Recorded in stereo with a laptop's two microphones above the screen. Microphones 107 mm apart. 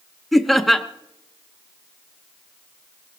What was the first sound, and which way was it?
Laughter, centre (ahead or behind).